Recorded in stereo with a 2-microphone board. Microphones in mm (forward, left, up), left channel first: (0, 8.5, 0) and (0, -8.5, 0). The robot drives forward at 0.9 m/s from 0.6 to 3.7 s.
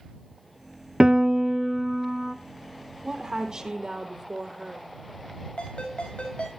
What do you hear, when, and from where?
1.0 s a piano: 55° right (ahead or behind), 0.5 m; by 2.4 s 15° right (ahead or behind), 1.4 m
3.0 s a woman speaking: 40° right (ahead or behind), 3.5 m; by 4.9 s 45° right (ahead or behind), 3 m
5.6 s a ringtone: 65° left (ahead or behind), 6.5 m